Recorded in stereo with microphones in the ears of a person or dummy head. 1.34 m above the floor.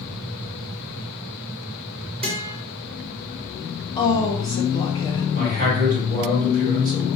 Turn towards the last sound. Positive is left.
turn(degrees=-45)  # may be behind; listen again after turning